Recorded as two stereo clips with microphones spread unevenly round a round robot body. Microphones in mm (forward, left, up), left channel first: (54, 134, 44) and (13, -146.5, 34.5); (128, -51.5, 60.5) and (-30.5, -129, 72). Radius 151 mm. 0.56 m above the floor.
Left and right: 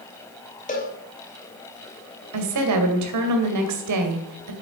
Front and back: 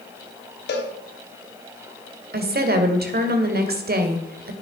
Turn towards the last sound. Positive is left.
turn(degrees=-125)